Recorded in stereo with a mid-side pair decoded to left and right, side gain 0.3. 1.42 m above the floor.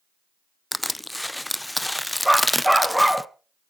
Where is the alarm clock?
No alarm clock in this recording.